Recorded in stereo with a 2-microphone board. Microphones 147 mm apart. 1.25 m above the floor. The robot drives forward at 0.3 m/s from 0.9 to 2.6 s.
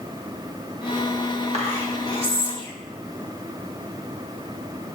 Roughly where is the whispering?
Right.